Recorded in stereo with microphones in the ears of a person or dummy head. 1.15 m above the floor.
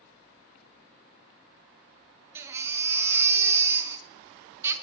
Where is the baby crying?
20° right (ahead or behind), 0.8 m.